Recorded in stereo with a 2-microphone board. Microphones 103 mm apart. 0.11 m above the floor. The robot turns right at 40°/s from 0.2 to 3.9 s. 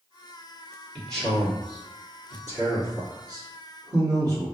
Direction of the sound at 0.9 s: 10° left (ahead or behind).